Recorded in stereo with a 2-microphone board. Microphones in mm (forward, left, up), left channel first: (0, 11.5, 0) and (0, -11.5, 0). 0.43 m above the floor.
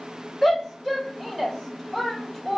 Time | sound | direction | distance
0.4 | a shout | 5° left (ahead or behind) | 1.3 m